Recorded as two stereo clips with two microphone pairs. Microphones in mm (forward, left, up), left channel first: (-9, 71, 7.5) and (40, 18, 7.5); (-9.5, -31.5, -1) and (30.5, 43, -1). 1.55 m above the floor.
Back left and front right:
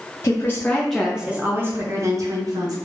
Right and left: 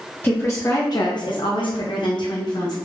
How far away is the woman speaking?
About 0.8 m.